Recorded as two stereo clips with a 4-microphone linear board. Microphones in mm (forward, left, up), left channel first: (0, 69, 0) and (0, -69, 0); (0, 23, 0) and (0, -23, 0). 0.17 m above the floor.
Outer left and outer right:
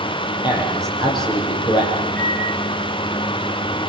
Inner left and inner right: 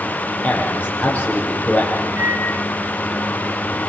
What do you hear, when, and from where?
0.4 s a man speaking: 35° left (ahead or behind), 6.5 m
2.2 s a microwave: 65° right (ahead or behind), 4 m